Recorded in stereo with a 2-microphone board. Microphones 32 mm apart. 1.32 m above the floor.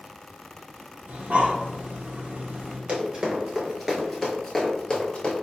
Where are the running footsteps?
30° right (ahead or behind), 1.4 m; by 5.3 s 35° left (ahead or behind), 1.6 m.